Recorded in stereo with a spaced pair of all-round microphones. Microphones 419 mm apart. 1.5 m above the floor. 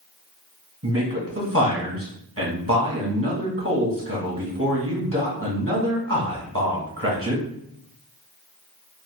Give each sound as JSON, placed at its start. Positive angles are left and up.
{"t": 0.8, "sound": "a man speaking", "side_deg": -30, "distance_m": 1.3}